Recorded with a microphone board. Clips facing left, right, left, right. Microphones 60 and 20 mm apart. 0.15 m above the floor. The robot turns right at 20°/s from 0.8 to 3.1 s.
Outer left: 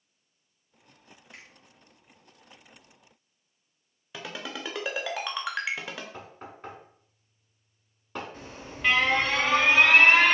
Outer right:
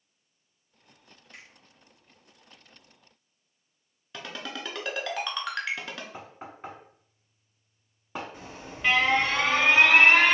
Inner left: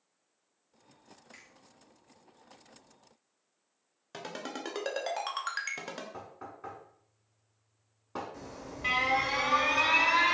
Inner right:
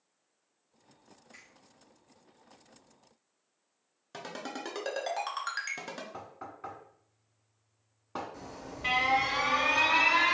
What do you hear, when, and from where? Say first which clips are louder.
1.3 s a finger snap: even, inner right 1 dB; 25° left (ahead or behind), 1.9 m; by 1.5 s 20° left (ahead or behind), 1.9 m
4.1 s a ringtone: even, even; 10° left (ahead or behind), 0.6 m
6.1 s knocking: outer right 1 dB, inner right 1 dB; 15° right (ahead or behind), 0.7 m
8.3 s an alarm: even, even; centre (ahead or behind), 1.0 m